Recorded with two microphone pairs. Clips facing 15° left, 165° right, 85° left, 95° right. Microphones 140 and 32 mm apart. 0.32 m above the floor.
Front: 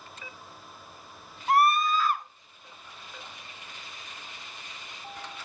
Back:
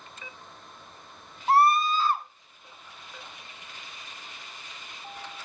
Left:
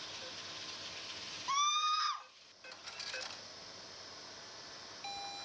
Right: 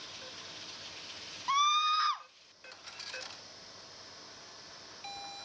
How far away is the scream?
About 1.0 m.